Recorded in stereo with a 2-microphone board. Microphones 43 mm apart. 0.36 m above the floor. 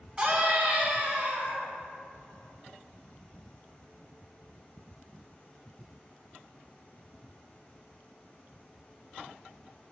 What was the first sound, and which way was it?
A scream, 15° right (ahead or behind).